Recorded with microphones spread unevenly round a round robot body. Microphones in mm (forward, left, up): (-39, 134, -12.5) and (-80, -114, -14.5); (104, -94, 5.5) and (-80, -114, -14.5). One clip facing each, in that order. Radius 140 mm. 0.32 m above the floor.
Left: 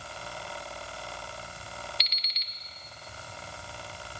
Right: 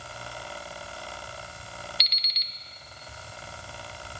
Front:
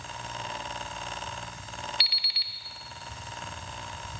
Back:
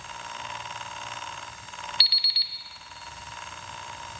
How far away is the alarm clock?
About 0.5 m.